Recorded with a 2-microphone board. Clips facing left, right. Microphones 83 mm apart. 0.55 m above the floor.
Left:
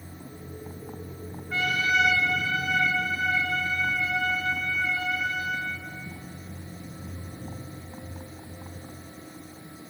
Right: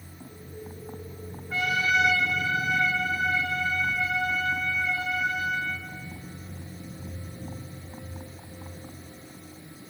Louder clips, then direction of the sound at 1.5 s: Even; 5° right (ahead or behind).